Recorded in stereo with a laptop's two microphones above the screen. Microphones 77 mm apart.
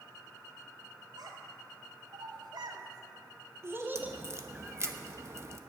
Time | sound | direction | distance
1.2 | a child speaking | 75° right (ahead or behind) | 3 m
4.0 | a crack | 40° right (ahead or behind) | 0.9 m